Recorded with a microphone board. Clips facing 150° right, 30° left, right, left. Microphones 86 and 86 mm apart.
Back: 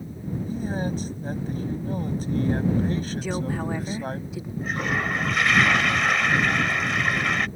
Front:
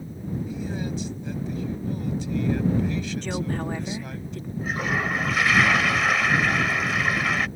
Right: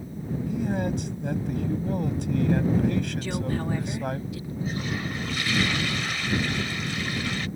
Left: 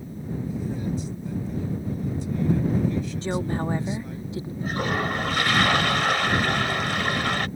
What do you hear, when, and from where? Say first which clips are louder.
0.5 s a man speaking: back 3 dB, right 4 dB; 105° right
3.2 s a woman speaking: back 1 dB, left 2 dB; 130° left
4.6 s a toilet flushing: even, left 5 dB; 120° left